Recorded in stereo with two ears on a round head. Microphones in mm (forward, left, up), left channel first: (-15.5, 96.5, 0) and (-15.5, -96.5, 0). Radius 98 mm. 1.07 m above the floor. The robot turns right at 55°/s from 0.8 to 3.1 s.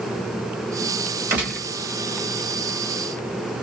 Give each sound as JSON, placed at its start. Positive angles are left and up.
{"t": 1.3, "sound": "a gunshot", "side_deg": -10, "distance_m": 1.2}